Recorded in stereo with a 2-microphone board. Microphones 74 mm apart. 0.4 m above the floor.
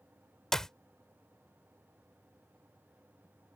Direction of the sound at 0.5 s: 10° left (ahead or behind).